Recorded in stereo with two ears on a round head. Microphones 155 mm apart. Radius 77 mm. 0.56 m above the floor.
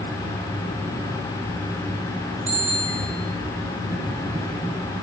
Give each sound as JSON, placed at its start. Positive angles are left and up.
{"t": 2.5, "sound": "a bicycle bell", "side_deg": -40, "distance_m": 6.0}